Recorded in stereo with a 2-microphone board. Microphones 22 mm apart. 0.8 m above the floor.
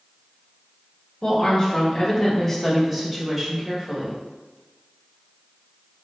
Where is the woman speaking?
30° left (ahead or behind), 1.1 m; by 4.2 s 25° right (ahead or behind), 1.2 m.